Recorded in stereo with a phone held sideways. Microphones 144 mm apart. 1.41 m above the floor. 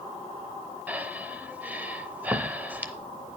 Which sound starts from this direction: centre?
Breathing, at 0.9 s.